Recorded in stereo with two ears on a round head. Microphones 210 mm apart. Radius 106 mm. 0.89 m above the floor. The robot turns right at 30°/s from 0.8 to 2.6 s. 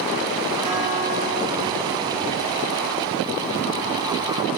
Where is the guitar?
140° left, 4.5 m; by 2.3 s 175° right, 4.5 m.